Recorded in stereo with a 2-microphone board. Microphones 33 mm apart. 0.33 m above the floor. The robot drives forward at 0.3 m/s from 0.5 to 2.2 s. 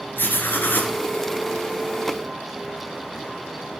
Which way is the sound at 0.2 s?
75° left (ahead or behind).